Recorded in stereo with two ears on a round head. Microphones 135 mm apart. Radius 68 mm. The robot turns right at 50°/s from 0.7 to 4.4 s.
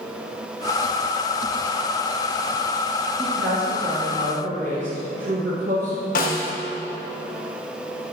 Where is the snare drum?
60° left (ahead or behind), 1.1 m.